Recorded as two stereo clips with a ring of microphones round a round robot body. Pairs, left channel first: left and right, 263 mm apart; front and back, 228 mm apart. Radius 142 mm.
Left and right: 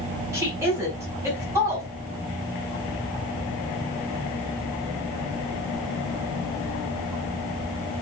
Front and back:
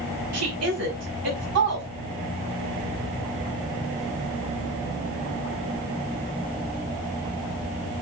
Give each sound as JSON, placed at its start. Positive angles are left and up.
{"t": 0.3, "sound": "a woman speaking", "azimuth_deg": -170, "distance_m": 4.5}